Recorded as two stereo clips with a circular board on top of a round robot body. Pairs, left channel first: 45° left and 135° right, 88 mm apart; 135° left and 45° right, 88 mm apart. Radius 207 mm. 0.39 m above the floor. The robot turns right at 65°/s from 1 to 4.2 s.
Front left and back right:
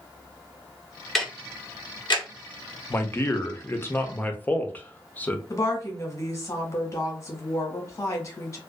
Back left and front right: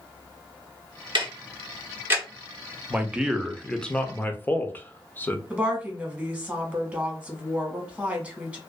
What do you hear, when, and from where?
1.1 s ticking: 45° right, 1.0 m; by 2.2 s 30° left, 1.0 m
2.9 s a man speaking: 10° left, 0.8 m; by 5.4 s 95° left, 0.8 m
5.5 s a woman speaking: 20° left, 1.4 m